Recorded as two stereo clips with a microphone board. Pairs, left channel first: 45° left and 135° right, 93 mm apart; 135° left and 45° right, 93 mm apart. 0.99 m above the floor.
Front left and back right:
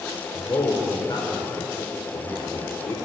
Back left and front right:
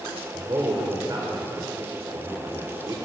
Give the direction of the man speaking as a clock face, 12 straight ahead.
12 o'clock.